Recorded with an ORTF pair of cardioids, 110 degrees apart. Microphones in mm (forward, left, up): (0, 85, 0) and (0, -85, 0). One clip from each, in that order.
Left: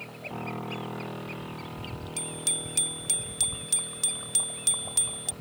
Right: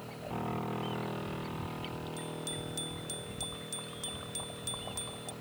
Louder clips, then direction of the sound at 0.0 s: Left 2 dB; straight ahead.